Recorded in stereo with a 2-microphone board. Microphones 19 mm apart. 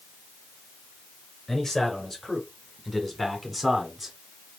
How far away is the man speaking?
About 2.0 m.